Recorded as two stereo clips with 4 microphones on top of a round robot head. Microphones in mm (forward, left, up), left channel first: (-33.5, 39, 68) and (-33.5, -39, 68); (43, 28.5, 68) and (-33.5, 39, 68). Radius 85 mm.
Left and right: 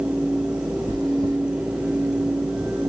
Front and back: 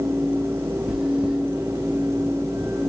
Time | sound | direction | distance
0.9 | chewing | 95° left | 1.2 m